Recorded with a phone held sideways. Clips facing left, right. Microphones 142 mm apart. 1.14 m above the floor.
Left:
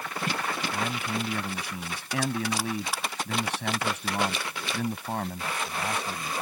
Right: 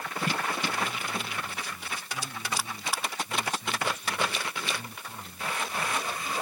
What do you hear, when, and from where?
0.7 s a man speaking: 80° left